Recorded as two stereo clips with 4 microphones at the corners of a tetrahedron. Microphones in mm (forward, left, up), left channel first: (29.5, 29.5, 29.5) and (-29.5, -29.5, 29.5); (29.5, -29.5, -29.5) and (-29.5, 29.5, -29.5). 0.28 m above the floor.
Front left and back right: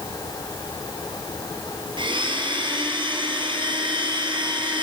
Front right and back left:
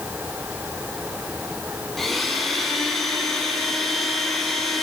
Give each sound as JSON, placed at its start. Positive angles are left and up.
{"t": 2.0, "sound": "a blender", "azimuth_deg": -135, "distance_m": 1.3}